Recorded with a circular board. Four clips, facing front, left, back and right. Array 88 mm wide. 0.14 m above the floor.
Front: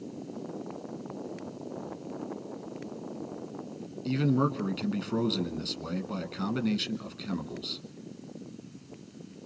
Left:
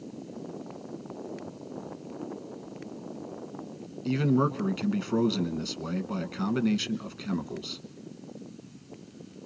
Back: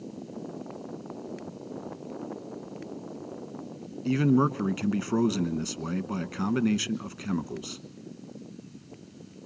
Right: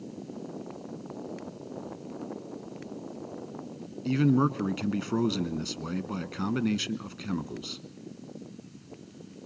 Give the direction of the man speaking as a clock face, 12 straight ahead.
6 o'clock.